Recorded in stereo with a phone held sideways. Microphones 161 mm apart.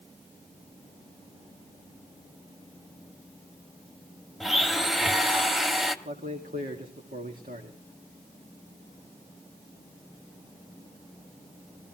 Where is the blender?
Centre (ahead or behind), 1.1 m.